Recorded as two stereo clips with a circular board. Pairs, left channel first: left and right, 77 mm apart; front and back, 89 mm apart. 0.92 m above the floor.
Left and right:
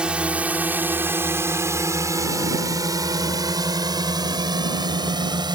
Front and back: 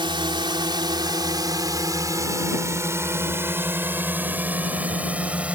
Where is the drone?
165° right; by 5.6 s 105° right.